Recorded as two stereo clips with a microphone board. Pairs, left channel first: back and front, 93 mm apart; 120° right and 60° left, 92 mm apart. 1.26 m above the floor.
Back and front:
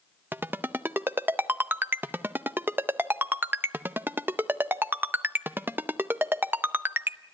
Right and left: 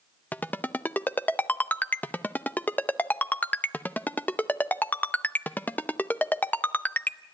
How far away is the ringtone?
About 0.5 m.